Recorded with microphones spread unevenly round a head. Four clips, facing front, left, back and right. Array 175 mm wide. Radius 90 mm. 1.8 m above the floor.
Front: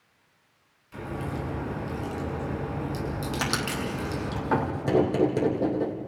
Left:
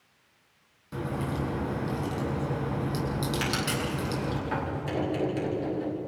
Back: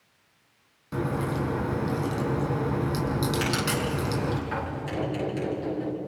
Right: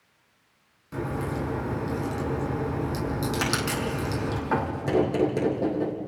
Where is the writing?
30° right, 3 m.